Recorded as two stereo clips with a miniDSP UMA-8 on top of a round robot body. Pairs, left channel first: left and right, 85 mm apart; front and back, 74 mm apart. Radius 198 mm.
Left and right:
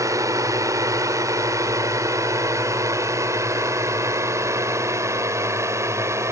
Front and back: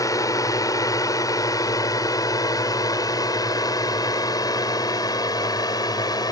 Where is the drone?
40° right; by 6.3 s 35° right.